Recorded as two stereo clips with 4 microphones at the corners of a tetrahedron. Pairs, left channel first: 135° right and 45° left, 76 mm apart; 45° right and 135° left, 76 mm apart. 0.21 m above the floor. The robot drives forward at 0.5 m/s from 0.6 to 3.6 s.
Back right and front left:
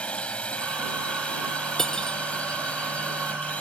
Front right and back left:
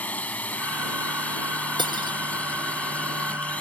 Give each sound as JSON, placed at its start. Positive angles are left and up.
{"t": 0.0, "sound": "a drone", "azimuth_deg": -85}
{"t": 1.8, "sound": "cutlery clinking", "azimuth_deg": 140}